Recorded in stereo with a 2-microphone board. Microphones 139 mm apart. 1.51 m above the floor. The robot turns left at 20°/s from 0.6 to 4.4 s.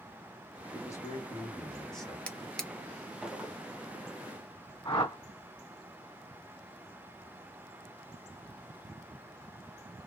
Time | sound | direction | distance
0.7 | a man speaking | 30° left (ahead or behind) | 1.4 m
2.3 | a drawer | 10° left (ahead or behind) | 0.6 m
4.8 | a whoosh | 40° left (ahead or behind) | 1.7 m